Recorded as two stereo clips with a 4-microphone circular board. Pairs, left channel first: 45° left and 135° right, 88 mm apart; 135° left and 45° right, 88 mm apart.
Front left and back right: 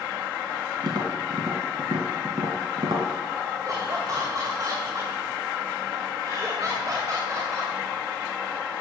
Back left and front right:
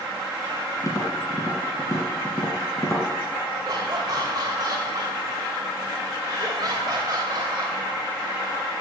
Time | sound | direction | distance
0.8 | tapping | 175° right | 2.5 m
3.6 | laughter | 90° right | 2.5 m